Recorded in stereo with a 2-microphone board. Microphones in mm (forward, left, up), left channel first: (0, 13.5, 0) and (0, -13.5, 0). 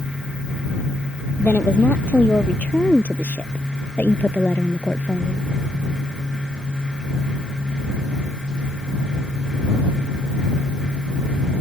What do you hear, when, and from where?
1.4 s a woman speaking: 85° left; by 5.5 s 70° left (ahead or behind)